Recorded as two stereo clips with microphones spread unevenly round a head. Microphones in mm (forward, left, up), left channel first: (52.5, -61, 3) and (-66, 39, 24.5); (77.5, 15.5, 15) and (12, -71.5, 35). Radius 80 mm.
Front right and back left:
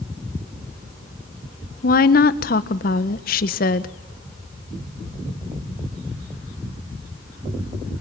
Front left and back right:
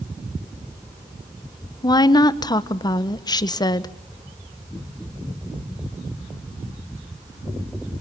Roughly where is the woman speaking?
Ahead.